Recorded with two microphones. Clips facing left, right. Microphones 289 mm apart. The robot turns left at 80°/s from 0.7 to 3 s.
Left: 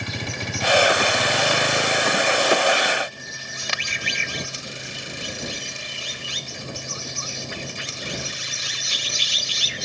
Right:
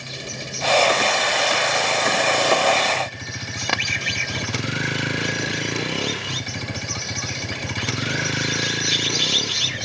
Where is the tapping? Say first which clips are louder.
Right 8 dB; 60° right (ahead or behind).